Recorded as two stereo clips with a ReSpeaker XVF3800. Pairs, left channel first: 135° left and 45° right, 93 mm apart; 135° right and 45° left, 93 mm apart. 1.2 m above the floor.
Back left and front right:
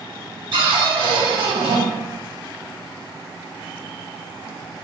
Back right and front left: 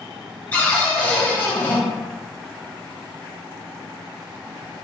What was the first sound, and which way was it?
A cupboard door, 65° right.